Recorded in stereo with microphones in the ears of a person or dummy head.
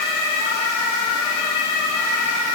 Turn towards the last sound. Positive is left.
No sound to turn to.